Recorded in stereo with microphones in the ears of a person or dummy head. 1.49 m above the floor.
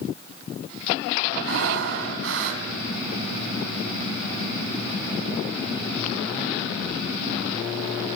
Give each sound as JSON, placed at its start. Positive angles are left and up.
{"t": 1.4, "sound": "breathing", "side_deg": -75, "distance_m": 4.0}